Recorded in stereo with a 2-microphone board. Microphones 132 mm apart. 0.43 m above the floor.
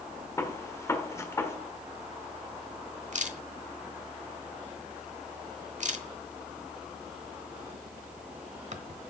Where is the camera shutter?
65° right (ahead or behind), 1.0 m.